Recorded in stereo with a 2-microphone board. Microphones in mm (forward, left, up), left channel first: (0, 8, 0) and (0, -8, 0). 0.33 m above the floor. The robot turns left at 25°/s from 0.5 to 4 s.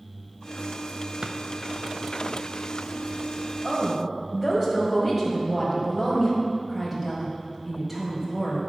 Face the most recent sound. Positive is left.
turn(degrees=-15)  # may be behind; listen again after turning